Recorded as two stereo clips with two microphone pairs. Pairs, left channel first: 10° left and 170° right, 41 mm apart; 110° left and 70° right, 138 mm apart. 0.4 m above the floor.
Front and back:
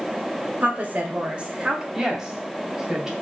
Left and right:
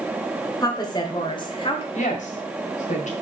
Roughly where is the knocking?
No knocking in this recording.